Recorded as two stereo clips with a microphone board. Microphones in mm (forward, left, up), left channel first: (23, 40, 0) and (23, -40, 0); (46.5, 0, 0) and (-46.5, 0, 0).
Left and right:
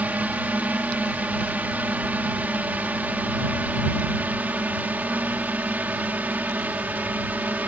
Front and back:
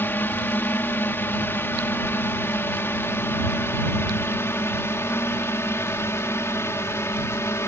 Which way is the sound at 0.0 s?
40° right.